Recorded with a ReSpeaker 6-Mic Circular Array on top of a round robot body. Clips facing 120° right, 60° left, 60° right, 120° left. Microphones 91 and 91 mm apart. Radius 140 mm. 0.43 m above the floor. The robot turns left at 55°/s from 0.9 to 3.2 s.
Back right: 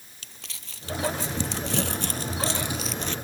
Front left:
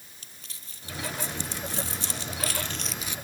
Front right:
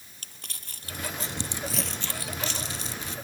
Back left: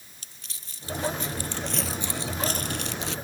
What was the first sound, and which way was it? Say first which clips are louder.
Crumpling: back right 7 dB, front right 6 dB; 100° right.